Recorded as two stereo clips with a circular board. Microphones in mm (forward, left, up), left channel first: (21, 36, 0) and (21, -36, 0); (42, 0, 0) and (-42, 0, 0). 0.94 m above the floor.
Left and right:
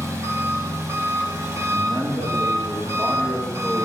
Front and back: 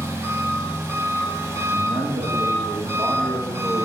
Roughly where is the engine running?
Behind right.